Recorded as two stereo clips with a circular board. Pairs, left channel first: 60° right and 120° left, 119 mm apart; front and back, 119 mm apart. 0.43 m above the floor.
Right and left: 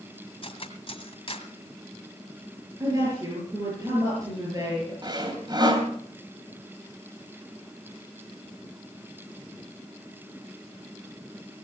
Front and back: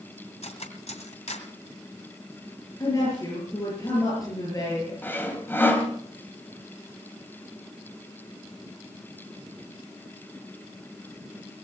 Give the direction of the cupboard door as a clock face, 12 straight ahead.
No cupboard door in this recording.